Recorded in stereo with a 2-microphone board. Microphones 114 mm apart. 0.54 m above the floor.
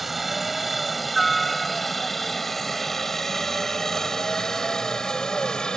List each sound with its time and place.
0.0 s a helicopter: centre (ahead or behind); by 5.8 s 5° left (ahead or behind)